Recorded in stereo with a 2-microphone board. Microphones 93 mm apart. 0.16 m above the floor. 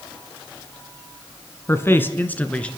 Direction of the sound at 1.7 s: 30° left (ahead or behind).